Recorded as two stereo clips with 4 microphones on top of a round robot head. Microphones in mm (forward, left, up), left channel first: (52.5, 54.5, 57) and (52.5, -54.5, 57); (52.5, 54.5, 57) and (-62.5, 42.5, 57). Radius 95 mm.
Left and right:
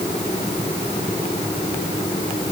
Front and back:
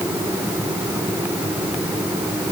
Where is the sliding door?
I don't hear a sliding door.